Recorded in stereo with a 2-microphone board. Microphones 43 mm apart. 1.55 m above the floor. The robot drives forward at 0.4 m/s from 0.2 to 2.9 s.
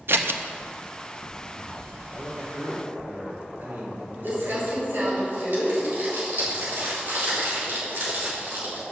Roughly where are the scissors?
Right.